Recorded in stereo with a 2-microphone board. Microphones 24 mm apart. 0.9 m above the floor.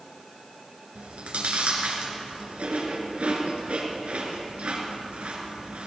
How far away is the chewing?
About 2.5 m.